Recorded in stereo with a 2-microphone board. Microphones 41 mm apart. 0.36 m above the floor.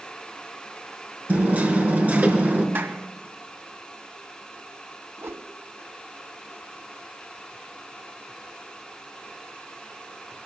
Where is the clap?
60° right (ahead or behind), 2 m.